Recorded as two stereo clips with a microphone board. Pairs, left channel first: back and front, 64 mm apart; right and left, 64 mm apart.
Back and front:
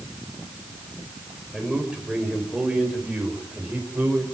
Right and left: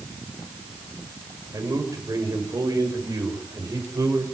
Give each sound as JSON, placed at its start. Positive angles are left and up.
{"t": 1.5, "sound": "a man speaking", "azimuth_deg": 75, "distance_m": 6.0}